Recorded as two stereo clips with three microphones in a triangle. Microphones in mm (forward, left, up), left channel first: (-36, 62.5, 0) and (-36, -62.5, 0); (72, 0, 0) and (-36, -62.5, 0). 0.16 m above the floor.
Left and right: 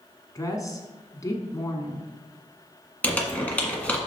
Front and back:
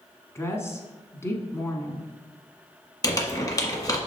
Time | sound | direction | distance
0.3 | a woman speaking | 70° left | 1.1 m
3.0 | crumpling | 25° left | 1.4 m